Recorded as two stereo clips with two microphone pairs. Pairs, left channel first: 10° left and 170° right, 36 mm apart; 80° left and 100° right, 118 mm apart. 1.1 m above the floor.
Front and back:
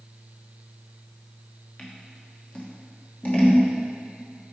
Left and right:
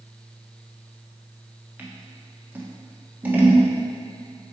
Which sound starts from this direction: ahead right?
Scissors, at 1.8 s.